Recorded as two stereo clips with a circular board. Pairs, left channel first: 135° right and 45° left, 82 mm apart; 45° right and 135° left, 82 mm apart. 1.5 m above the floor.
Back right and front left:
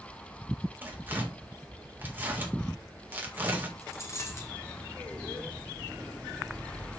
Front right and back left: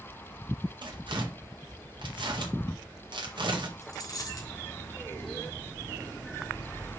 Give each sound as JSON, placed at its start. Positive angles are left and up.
{"t": 0.8, "sound": "tearing paper", "azimuth_deg": 110, "distance_m": 1.8}
{"t": 3.8, "sound": "a dropped coin", "azimuth_deg": -85, "distance_m": 3.0}